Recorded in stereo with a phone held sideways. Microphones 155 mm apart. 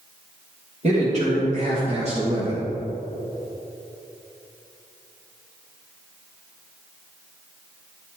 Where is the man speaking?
50° right (ahead or behind), 1.9 m; by 2.6 s 40° right (ahead or behind), 0.9 m.